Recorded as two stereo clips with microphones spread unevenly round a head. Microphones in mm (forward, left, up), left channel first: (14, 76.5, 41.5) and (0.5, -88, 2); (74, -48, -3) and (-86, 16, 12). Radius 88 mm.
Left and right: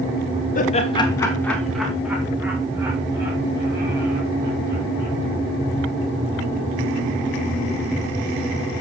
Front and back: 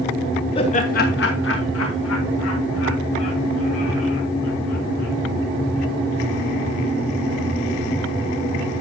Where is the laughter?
40° left, 1.5 m; by 5.1 s 30° right, 6.5 m.